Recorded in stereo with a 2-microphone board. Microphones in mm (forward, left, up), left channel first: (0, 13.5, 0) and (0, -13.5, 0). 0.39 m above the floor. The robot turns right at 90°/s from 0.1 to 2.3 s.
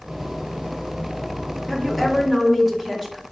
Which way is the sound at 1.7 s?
5° left (ahead or behind).